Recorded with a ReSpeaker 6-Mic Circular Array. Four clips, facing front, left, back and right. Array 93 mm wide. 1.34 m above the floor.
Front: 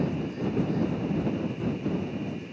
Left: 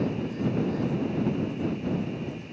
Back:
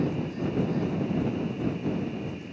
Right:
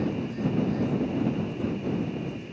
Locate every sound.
Only background noise.